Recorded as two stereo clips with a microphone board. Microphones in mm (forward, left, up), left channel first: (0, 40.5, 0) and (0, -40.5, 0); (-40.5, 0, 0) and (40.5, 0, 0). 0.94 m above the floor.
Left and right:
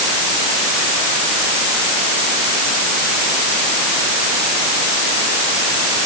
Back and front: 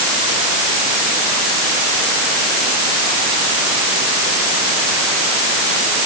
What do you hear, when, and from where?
Only background noise.